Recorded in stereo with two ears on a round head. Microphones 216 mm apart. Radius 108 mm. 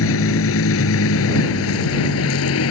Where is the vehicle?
60° left (ahead or behind); by 2.7 s 65° left (ahead or behind).